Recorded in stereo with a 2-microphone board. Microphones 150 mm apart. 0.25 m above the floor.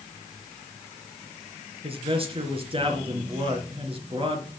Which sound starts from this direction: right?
A man speaking, at 1.8 s.